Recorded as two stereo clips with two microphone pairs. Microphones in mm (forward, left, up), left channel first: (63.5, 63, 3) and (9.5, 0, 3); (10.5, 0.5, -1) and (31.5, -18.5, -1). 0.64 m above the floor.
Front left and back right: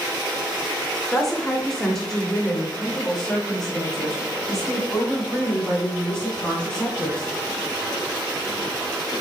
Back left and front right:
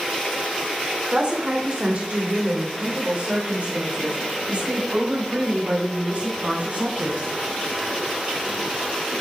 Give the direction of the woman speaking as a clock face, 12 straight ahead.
1 o'clock.